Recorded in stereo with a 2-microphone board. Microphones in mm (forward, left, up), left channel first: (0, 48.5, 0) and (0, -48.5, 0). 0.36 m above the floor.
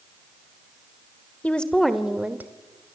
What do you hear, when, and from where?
1.4 s a woman speaking: 15° left (ahead or behind), 1.5 m; by 2.5 s 20° right (ahead or behind), 1.4 m